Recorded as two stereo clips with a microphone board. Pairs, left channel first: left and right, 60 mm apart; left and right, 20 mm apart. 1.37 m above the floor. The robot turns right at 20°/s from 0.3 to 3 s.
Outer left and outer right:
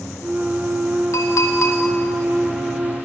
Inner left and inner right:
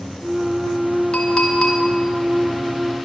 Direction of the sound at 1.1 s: 60° left (ahead or behind).